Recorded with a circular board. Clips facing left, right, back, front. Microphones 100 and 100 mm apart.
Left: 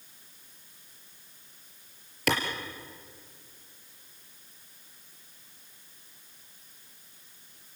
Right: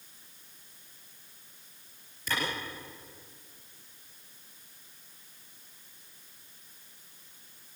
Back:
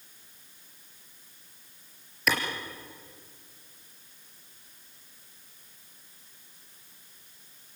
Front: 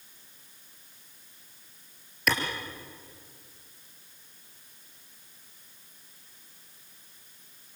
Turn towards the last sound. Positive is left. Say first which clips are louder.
# left 7 dB, even
turn(degrees=90)